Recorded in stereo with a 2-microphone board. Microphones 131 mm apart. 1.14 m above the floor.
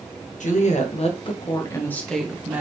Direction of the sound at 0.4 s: 70° left (ahead or behind).